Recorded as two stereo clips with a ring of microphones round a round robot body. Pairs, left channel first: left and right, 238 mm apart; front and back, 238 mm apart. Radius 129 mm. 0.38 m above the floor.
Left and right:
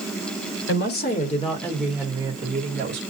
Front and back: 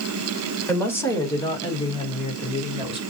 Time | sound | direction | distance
0.7 | a woman speaking | 80° left | 1.5 m